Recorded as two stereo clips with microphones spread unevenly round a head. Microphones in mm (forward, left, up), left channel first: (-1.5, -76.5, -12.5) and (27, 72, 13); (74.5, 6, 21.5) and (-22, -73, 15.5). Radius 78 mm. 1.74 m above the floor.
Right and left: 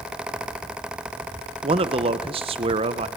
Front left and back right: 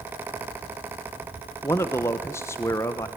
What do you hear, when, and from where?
1.6 s a man speaking: 105° left, 0.9 m